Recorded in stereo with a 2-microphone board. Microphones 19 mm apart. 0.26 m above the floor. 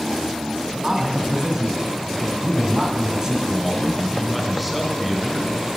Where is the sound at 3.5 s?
Centre (ahead or behind), 2.5 m.